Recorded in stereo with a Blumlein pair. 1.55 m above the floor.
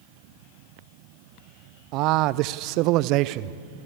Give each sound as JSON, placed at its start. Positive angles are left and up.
{"t": 1.9, "sound": "a man speaking", "azimuth_deg": -40, "distance_m": 0.7}